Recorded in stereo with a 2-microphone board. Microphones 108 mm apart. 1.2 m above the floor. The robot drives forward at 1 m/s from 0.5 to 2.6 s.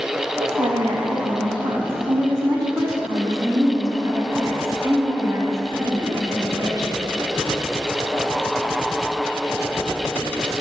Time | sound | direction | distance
0.4 | a woman speaking | 80° right | 1.7 m